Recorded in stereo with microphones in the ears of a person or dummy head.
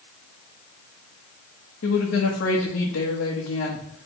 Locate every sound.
1.8 s a woman speaking: 70° left (ahead or behind), 1.3 m